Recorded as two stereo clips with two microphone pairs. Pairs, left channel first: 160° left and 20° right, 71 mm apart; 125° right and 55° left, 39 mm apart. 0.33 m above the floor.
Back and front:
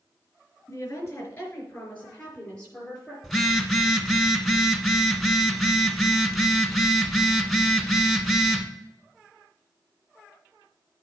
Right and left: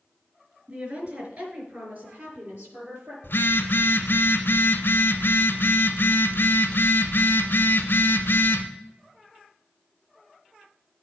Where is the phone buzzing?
115° right, 1.2 m.